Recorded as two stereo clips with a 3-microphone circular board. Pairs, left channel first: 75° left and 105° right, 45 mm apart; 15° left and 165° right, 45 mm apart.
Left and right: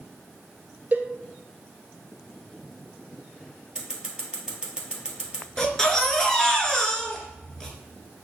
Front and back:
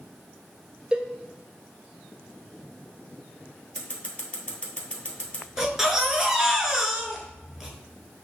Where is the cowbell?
110° right, 0.7 m.